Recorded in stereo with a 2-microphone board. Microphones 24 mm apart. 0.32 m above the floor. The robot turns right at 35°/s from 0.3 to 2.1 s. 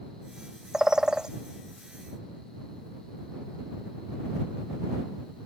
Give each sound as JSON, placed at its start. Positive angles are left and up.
{"t": 0.7, "sound": "a bird", "side_deg": -20}